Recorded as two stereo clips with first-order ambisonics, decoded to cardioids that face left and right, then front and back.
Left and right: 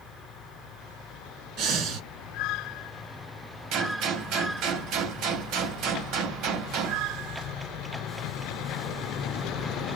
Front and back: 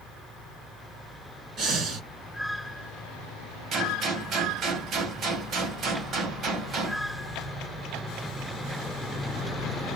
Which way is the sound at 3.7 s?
125° right.